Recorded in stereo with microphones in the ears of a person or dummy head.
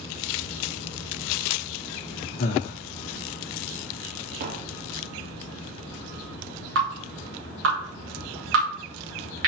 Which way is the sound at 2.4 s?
50° left (ahead or behind).